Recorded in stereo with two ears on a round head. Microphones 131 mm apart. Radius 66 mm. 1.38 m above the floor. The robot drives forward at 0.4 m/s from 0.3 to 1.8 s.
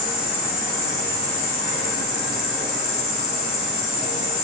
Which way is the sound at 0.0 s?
45° left (ahead or behind).